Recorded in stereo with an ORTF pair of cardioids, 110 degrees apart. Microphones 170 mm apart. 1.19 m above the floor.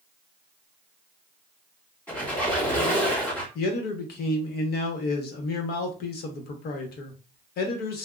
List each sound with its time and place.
2.1 s a squeak: 10° left, 2.0 m
3.5 s a man speaking: 70° left, 1.0 m